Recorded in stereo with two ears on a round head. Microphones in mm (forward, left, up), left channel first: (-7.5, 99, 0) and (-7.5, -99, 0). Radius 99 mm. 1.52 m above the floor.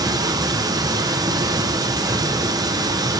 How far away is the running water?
About 0.8 m.